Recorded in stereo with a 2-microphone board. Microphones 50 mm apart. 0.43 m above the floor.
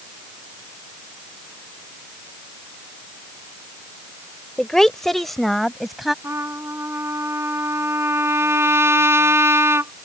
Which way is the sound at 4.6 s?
15° left (ahead or behind).